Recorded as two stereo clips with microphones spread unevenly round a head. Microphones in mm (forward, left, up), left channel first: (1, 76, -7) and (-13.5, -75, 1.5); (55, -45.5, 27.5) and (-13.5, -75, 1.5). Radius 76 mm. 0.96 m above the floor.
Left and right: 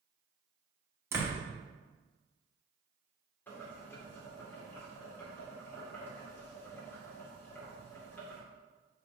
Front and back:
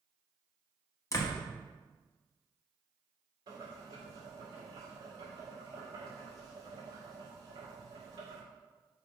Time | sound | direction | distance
1.1 | a door slam | 20° right | 1.2 m
3.5 | boiling | 165° left | 2.5 m